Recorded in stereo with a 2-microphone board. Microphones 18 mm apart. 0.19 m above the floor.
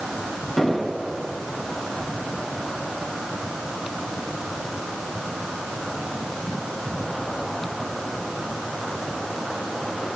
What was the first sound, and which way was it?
An explosion, 20° left (ahead or behind).